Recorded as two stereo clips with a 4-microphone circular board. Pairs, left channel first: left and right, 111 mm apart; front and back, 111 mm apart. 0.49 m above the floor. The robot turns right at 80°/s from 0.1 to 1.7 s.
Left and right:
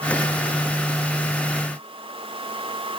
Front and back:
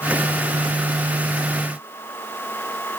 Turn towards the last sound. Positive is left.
No sound to turn to.